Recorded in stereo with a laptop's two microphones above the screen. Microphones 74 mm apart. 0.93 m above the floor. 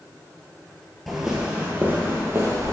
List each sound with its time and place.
1.1 s footsteps: centre (ahead or behind), 1.2 m; by 2.7 s 40° right (ahead or behind), 1.9 m